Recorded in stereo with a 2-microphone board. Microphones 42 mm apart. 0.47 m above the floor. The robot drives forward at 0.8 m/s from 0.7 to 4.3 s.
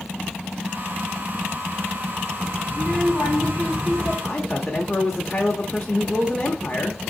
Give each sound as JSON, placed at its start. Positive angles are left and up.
{"t": 2.7, "sound": "a child speaking", "side_deg": 15, "distance_m": 2.5}
{"t": 4.2, "sound": "a man speaking", "side_deg": 10, "distance_m": 0.9}